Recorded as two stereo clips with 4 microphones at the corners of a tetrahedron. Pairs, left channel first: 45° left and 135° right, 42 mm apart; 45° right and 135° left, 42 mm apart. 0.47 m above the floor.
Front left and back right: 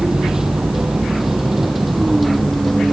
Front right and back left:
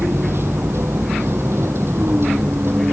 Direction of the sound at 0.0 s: 145° left.